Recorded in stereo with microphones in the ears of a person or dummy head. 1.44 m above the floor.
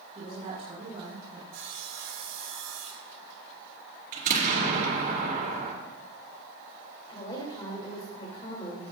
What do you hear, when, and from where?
0.1 s a woman speaking: 35° right (ahead or behind), 5 m
1.5 s sawing: 85° right, 3 m
4.1 s an explosion: 55° right (ahead or behind), 4 m
7.1 s a woman speaking: 30° left (ahead or behind), 2.5 m